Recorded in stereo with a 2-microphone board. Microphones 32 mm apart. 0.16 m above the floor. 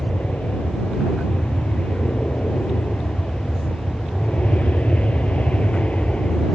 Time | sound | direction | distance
0.0 | an aircraft | 50° left (ahead or behind) | ?